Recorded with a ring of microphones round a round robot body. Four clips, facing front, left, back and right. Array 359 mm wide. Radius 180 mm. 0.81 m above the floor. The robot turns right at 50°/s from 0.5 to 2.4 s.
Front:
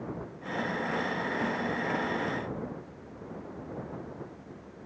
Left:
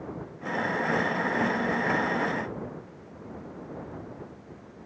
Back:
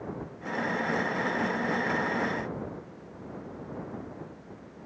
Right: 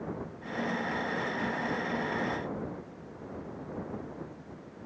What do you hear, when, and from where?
Only background noise.